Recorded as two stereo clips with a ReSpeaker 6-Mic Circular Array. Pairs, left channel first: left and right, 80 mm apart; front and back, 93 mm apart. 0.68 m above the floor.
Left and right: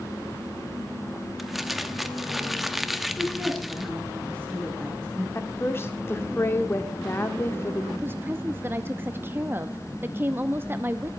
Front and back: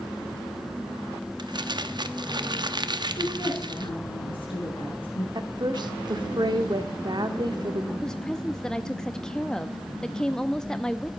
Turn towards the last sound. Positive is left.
turn(degrees=-75)